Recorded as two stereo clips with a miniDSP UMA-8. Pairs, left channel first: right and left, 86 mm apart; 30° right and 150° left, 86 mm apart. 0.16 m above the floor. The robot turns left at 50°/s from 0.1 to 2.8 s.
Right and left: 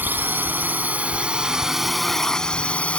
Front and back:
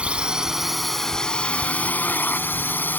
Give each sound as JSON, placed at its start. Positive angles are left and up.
{"t": 0.0, "sound": "a drone", "azimuth_deg": 95}